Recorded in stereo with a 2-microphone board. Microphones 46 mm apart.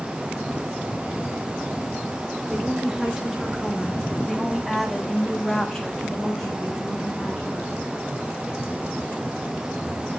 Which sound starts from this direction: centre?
A woman speaking, at 2.5 s.